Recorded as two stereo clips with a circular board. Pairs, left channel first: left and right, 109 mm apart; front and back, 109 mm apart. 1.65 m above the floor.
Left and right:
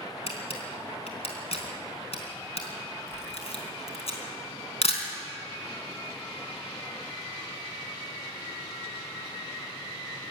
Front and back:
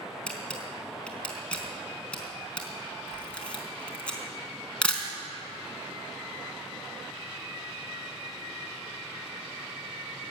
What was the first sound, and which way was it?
A camera shutter, 80° left.